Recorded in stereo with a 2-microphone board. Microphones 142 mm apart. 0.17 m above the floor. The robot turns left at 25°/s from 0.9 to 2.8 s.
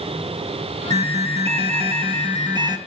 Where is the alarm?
95° right, 2.5 m; by 2.8 s 140° right, 2.5 m.